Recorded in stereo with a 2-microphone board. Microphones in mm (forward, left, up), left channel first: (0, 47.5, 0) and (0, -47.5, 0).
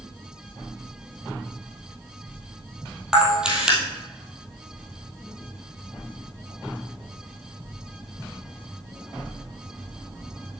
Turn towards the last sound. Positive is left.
turn(degrees=-10)  # may be behind; listen again after turning